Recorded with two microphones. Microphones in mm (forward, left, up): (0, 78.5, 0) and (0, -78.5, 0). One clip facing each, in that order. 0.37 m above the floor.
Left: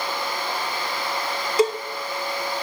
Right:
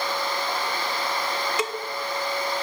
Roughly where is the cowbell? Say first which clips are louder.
Left 9 dB; left.